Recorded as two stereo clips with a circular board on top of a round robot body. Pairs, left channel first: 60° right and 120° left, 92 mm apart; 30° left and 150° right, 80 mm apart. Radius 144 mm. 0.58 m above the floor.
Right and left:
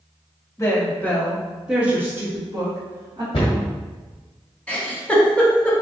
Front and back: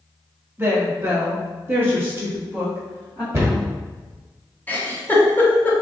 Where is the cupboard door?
90° right, 1.1 m.